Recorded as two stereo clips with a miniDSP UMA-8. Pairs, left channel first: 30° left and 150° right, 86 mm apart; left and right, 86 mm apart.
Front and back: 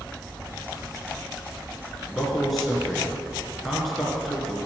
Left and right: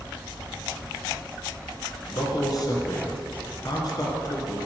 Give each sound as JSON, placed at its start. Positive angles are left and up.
{"t": 2.1, "sound": "a man speaking", "azimuth_deg": 120, "distance_m": 2.5}